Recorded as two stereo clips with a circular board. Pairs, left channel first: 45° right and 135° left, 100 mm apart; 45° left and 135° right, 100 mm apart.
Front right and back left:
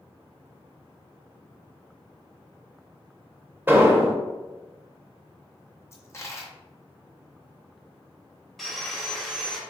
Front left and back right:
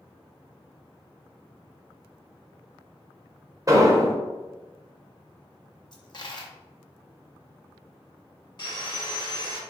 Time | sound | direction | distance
3.7 | an explosion | 170° right | 0.6 m
5.9 | a dropped coin | 15° left | 0.7 m
8.6 | sawing | 45° left | 1.0 m